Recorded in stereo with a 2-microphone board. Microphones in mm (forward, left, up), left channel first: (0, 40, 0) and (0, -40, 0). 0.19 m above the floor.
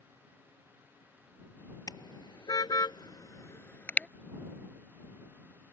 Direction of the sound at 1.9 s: 55° left (ahead or behind).